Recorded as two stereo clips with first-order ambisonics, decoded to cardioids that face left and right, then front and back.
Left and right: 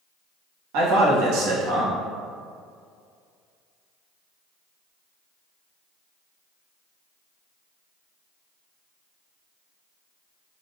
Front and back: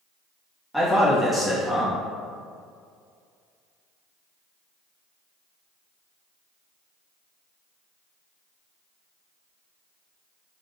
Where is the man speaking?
90° right, 1.3 m.